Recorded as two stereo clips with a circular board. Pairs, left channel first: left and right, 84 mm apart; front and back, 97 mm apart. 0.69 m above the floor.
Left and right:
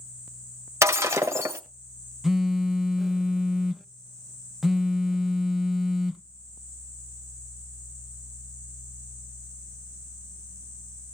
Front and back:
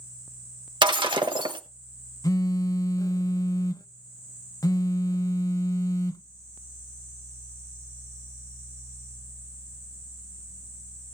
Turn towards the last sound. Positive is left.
turn(degrees=-5)